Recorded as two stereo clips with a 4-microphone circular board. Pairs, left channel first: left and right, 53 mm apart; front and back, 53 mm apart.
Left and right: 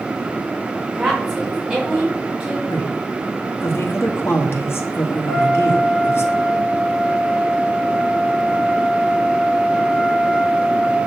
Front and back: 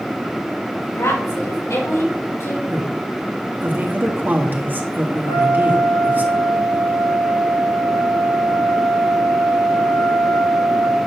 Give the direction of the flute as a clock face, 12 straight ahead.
12 o'clock.